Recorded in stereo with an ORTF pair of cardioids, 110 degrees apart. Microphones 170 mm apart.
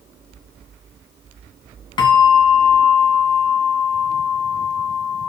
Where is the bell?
30° left, 2.5 m.